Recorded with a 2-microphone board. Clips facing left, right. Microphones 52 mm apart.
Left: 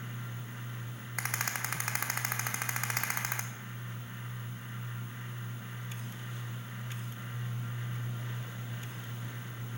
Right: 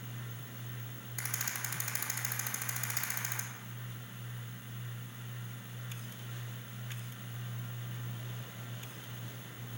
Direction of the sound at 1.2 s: 60° left (ahead or behind).